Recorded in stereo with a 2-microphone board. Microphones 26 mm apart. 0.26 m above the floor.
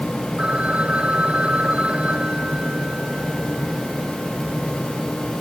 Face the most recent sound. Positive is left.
turn(degrees=-45)  # may be behind; listen again after turning